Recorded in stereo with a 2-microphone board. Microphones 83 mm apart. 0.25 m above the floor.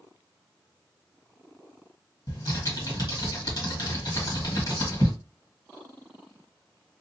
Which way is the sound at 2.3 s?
50° left (ahead or behind).